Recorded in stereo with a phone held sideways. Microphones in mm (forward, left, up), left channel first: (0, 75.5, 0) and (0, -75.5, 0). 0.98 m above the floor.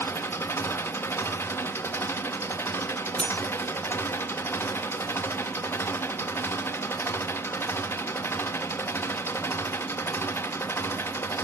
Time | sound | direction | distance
0.0 | an engine running | 15° left (ahead or behind) | 0.9 m
3.2 | cutlery clinking | 40° left (ahead or behind) | 0.5 m